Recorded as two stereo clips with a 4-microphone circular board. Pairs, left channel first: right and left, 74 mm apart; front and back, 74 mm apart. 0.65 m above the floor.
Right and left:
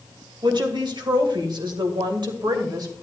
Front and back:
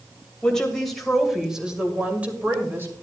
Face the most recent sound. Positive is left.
turn(degrees=120)